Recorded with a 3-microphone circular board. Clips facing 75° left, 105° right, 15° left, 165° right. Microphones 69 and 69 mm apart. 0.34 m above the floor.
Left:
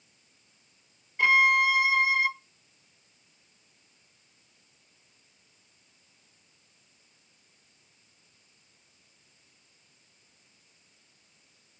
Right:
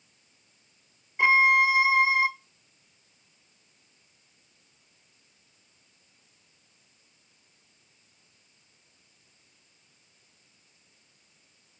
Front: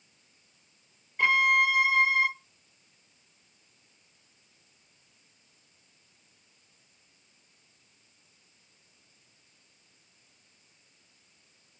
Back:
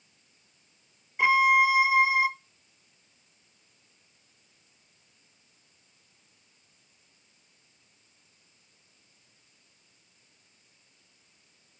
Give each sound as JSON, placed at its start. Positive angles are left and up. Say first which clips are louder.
{"t": 1.2, "sound": "a violin", "louder": "right 2 dB, back 3 dB", "azimuth_deg": -115, "distance_m": 0.5}